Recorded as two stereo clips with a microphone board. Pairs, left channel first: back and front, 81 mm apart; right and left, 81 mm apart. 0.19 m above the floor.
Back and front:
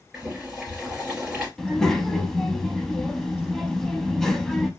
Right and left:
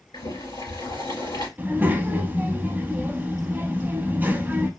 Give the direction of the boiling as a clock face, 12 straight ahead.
3 o'clock.